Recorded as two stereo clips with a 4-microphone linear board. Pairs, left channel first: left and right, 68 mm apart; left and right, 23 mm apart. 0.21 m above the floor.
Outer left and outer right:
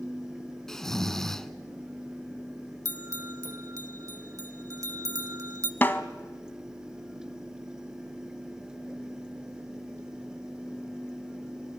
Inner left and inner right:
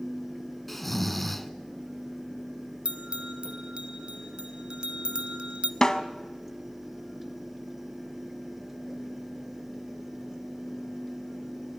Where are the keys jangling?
I don't hear keys jangling.